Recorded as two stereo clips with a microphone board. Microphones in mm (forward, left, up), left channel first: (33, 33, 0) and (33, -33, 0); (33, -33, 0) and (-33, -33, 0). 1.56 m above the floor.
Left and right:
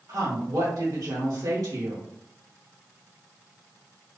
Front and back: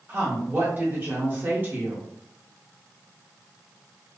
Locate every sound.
0.1 s a woman speaking: 120° right, 1.0 m